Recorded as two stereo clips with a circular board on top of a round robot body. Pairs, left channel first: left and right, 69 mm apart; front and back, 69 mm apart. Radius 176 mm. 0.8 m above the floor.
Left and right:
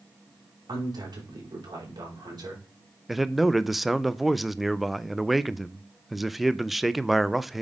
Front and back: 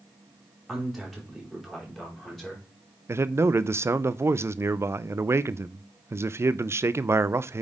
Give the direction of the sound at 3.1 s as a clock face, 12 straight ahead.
6 o'clock.